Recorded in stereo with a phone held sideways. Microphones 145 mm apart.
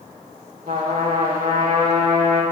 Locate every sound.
0.7 s a trumpet: 80° right, 5 m